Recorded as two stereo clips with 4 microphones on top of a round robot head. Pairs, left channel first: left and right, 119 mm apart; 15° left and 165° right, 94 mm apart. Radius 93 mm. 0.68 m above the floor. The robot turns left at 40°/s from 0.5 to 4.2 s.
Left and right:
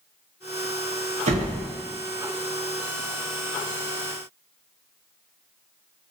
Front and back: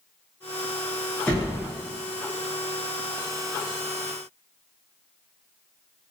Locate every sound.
1.3 s a door slam: 65° right, 0.6 m; by 1.6 s 80° right, 0.6 m